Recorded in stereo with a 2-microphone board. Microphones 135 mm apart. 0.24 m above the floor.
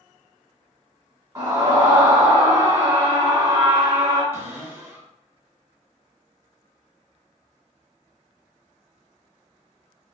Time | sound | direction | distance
1.4 | a scream | 30° right (ahead or behind) | 1.7 m
4.3 | a cupboard door | 15° right (ahead or behind) | 0.9 m